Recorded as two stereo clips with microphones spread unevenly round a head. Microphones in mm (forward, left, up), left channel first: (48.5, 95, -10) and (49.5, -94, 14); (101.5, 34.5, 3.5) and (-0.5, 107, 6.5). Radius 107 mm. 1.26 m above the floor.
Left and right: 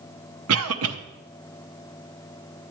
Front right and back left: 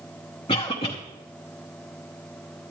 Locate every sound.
0.5 s a cough: 100° right, 0.8 m